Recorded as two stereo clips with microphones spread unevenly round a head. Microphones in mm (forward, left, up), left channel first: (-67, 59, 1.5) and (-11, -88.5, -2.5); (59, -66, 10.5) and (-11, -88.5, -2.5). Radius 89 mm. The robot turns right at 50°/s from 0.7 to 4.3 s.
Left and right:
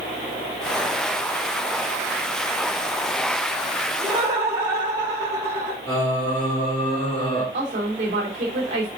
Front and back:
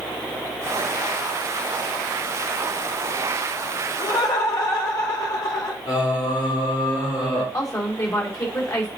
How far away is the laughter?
About 3.5 m.